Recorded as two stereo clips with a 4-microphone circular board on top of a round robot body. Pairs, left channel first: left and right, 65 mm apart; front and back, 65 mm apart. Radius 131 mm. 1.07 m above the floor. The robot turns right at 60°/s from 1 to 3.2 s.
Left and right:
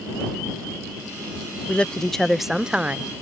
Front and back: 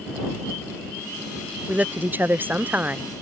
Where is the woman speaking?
145° left; by 3.0 s 135° right.